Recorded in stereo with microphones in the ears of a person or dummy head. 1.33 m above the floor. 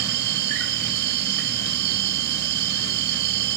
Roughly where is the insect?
Right.